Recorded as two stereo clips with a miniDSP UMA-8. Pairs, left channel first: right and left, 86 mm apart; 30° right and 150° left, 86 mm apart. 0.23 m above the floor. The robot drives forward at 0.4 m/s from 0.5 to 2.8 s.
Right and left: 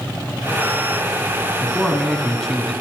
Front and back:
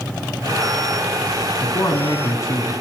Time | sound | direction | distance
1.6 | a man speaking | 5° right | 2 m